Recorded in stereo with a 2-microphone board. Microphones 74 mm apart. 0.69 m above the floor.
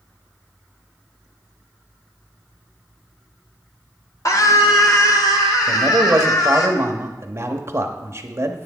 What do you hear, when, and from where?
4.2 s a scream: 50° left (ahead or behind), 1.3 m; by 6.7 s 70° left (ahead or behind), 2.5 m
5.7 s a man speaking: 40° right (ahead or behind), 0.9 m